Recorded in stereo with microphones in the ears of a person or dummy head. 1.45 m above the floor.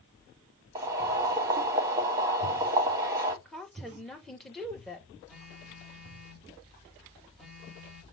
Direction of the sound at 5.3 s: 5° right (ahead or behind).